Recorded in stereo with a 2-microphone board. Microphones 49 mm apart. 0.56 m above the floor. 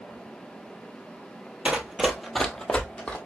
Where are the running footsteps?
25° right (ahead or behind), 0.6 m; by 3.2 s 25° left (ahead or behind), 0.9 m.